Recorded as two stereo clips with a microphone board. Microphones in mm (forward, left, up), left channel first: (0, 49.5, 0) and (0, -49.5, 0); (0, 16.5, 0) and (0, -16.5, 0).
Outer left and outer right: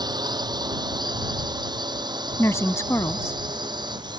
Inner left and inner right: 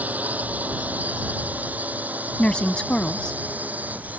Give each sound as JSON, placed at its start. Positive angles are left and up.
{"t": 0.0, "sound": "a drone", "side_deg": -50}
{"t": 2.4, "sound": "a woman speaking", "side_deg": 30}